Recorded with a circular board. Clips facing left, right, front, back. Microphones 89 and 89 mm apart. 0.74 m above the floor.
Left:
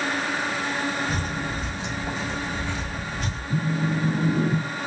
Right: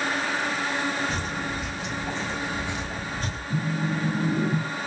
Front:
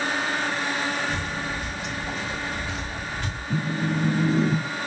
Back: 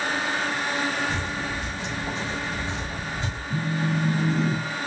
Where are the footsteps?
110° left, 1.1 m; by 3.4 s 120° right, 1.0 m.